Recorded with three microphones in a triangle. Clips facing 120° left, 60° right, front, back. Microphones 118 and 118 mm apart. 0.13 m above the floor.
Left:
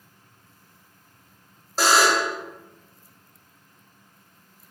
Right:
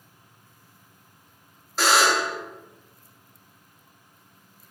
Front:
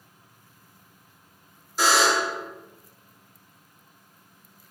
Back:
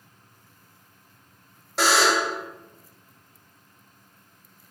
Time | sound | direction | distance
1.8 | a buzzer | 170° left | 0.9 m